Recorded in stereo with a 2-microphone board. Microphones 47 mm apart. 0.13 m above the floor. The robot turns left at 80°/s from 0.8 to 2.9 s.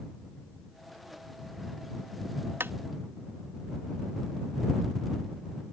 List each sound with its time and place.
2.6 s tapping: 60° right (ahead or behind); by 2.7 s 50° right (ahead or behind)